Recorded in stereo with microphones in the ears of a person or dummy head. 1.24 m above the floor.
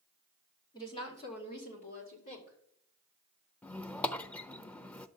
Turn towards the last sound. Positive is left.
turn(degrees=5)  # may be behind; listen again after turning